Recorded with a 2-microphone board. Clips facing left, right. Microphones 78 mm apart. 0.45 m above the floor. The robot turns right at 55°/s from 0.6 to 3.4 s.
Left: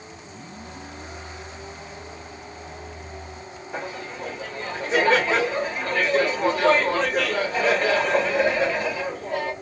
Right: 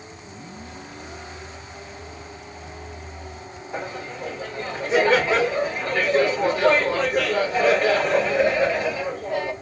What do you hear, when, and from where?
3.7 s laughter: 5° right (ahead or behind), 1.2 m